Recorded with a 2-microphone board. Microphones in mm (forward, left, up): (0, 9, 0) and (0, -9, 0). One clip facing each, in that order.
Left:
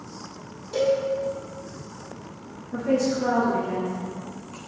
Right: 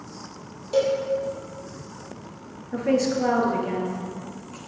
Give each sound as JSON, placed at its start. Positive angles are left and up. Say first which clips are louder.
{"t": 0.7, "sound": "a cowbell", "louder": "right 1 dB", "side_deg": -30, "distance_m": 3.0}
{"t": 2.7, "sound": "a woman speaking", "louder": "right 1 dB", "side_deg": -45, "distance_m": 1.9}